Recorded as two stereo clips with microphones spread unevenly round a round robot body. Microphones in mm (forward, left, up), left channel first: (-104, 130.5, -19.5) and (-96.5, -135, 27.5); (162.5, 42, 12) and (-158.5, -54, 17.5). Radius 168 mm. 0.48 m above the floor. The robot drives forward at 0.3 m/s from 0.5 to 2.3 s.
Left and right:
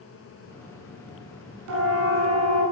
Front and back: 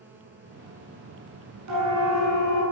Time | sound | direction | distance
1.7 | a siren | 120° right | 6 m